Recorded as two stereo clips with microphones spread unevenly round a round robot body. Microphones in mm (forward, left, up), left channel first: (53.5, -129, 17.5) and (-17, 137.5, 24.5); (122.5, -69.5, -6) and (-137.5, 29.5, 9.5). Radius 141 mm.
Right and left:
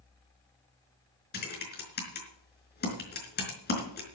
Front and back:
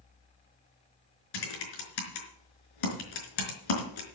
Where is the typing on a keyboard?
20° right, 4.5 m.